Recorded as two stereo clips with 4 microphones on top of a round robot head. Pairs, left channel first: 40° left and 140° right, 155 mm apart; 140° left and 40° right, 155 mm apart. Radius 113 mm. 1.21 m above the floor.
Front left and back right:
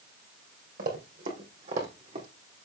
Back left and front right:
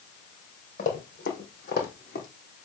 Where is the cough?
I don't hear a cough.